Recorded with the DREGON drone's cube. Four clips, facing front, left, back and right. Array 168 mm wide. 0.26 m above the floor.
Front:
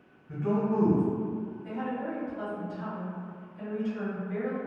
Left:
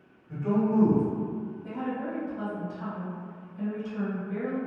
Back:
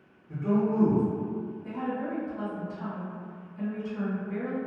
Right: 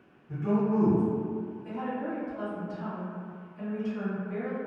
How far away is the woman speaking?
About 1.5 m.